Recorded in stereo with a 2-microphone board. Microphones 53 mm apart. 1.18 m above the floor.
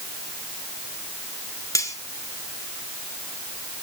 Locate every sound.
1.8 s cutlery clinking: 80° left, 2 m